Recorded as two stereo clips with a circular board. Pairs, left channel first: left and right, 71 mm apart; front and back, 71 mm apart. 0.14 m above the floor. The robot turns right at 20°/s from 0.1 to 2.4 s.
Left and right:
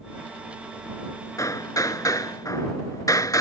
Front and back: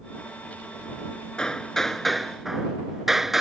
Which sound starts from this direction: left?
Hammering, at 1.4 s.